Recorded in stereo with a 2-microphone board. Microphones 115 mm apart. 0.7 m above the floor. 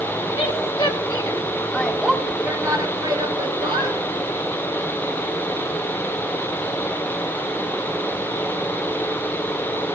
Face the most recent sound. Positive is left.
turn(degrees=-60)  # may be behind; listen again after turning